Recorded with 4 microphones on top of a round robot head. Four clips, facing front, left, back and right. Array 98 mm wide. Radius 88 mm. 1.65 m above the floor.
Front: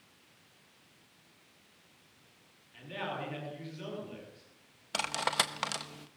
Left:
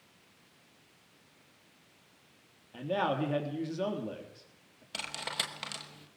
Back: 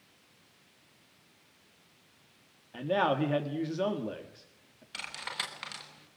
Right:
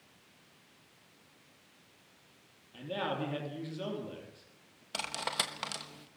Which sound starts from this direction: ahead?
Cutlery clinking, at 4.9 s.